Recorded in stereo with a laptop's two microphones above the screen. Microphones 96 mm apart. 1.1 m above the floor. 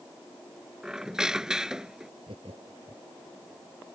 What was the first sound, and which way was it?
A squeak, 5° right (ahead or behind).